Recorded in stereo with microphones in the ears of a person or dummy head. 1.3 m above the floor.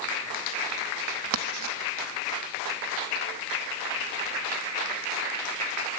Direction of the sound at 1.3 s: 70° right (ahead or behind).